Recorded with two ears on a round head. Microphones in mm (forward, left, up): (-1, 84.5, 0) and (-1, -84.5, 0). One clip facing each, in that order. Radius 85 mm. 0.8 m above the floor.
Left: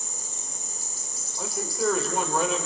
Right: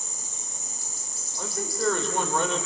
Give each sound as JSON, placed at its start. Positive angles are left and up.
{"t": 1.4, "sound": "a man speaking", "side_deg": 5, "distance_m": 3.0}